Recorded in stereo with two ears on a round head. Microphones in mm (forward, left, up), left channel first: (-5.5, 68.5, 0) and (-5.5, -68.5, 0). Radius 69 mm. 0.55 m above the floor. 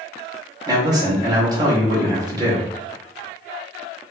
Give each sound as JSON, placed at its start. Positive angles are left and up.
{"t": 0.7, "sound": "a man speaking", "side_deg": -25, "distance_m": 0.9}